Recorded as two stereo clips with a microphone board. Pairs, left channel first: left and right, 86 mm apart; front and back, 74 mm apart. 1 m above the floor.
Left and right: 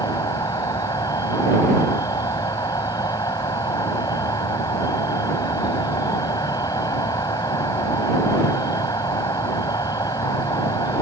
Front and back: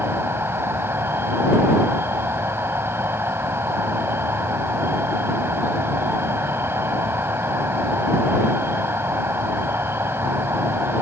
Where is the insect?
125° left.